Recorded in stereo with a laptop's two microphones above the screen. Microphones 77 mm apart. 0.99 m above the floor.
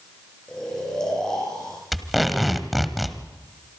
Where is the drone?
I don't hear a drone.